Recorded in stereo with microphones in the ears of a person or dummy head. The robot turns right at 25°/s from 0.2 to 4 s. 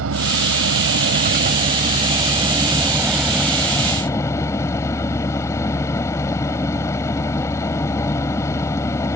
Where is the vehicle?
80° right; by 9.2 s 15° left.